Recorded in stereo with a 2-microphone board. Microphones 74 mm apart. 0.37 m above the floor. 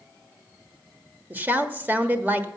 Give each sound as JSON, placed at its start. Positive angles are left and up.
{"t": 1.3, "sound": "a woman speaking", "side_deg": -20, "distance_m": 1.0}